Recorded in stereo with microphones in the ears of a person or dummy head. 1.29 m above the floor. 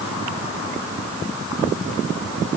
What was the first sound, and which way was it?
Only background noise.